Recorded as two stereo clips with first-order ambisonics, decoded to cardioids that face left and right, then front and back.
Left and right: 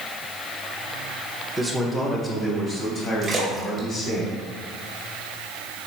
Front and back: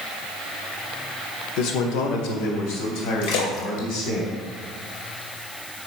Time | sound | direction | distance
1.6 | a man speaking | 5° right | 1.4 m
3.2 | a splash | 10° right | 2 m